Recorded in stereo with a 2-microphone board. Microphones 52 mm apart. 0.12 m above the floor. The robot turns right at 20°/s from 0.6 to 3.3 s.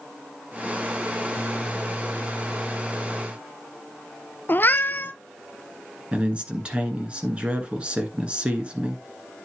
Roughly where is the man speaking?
Right.